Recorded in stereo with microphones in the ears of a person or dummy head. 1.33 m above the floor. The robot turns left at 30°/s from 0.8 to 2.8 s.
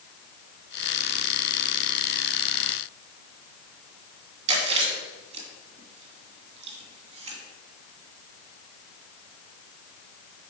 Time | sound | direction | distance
4.5 | chewing | 35° right (ahead or behind) | 2.5 m